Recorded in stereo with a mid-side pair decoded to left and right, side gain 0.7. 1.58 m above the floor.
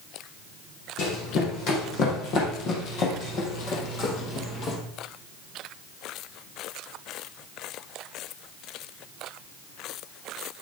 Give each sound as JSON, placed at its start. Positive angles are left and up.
{"t": 1.0, "sound": "running footsteps", "azimuth_deg": 60, "distance_m": 5.5}